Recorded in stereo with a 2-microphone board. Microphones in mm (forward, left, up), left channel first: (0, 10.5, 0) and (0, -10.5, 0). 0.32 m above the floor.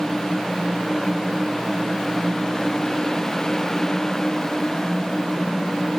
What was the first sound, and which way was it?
Only background noise.